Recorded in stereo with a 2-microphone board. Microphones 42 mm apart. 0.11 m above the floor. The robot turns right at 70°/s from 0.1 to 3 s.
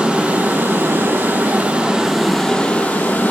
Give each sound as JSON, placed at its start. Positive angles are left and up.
{"t": 0.0, "sound": "running water", "azimuth_deg": -155, "distance_m": 2.5}